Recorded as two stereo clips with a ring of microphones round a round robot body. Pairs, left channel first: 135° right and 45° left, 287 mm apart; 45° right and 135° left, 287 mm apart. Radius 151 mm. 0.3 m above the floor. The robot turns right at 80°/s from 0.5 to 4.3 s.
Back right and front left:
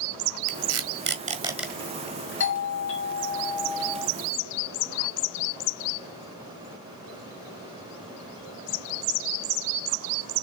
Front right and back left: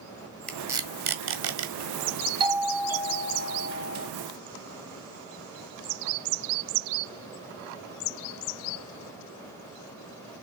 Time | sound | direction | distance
0.5 | tape being pulled | 40° left | 1.7 m
2.4 | a doorbell | 160° right | 2.0 m